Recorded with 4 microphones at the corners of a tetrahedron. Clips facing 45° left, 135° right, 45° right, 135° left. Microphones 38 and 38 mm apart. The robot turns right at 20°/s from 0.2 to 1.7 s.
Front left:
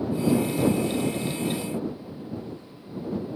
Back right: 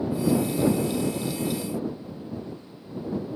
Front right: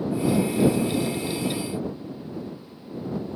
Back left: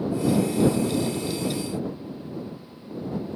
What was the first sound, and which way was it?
Only background noise.